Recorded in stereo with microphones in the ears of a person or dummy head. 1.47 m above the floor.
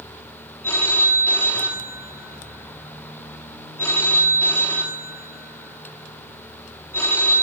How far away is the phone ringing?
About 2.5 m.